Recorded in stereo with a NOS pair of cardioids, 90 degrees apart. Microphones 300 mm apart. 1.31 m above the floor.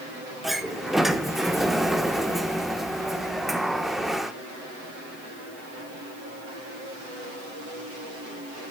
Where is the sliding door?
Straight ahead, 1.3 m.